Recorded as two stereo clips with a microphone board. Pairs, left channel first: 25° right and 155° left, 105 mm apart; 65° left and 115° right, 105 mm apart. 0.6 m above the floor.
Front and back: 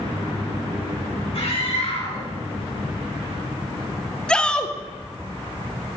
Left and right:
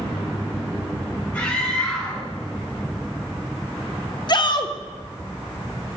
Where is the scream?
10° right, 3.5 m.